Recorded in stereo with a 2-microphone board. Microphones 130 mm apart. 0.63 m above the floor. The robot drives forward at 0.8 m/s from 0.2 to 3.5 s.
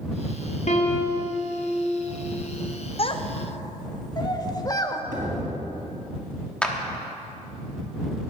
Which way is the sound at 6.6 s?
5° left (ahead or behind).